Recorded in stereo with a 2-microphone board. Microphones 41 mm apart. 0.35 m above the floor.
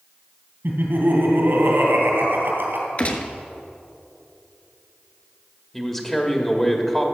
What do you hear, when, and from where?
0.6 s laughter: 65° right (ahead or behind), 2.5 m
3.0 s a gunshot: 40° left (ahead or behind), 0.9 m
5.7 s a man speaking: 10° left (ahead or behind), 1.3 m